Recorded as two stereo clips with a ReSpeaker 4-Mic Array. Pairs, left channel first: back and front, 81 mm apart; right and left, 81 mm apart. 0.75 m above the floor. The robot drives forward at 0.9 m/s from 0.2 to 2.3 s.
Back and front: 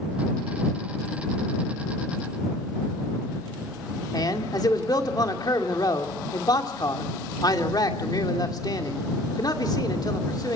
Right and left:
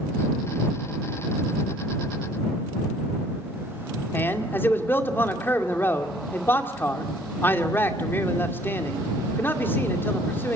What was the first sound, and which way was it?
A man speaking, 150° right.